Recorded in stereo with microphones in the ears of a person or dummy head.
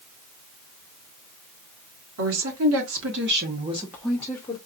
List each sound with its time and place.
2.2 s a woman speaking: 75° right (ahead or behind), 1.5 m; by 4.6 s 25° left (ahead or behind), 1.0 m